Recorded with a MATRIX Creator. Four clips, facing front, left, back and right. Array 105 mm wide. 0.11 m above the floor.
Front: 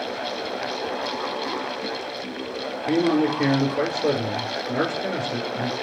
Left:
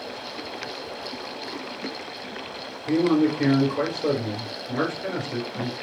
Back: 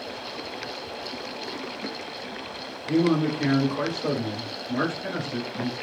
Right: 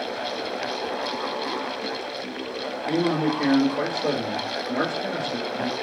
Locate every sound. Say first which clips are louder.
2.9 s a man speaking: left 3 dB, front 2 dB; 5° left, 1.2 m